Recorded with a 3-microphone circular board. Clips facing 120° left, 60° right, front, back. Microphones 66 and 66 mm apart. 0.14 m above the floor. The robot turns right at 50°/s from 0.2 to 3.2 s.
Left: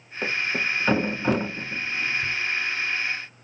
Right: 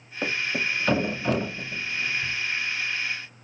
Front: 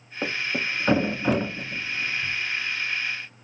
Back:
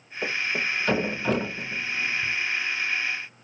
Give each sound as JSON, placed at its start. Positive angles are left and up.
{"t": 0.2, "sound": "a thud", "azimuth_deg": 20, "distance_m": 0.5}